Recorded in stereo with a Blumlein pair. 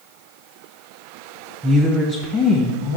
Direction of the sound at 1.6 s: 15° right.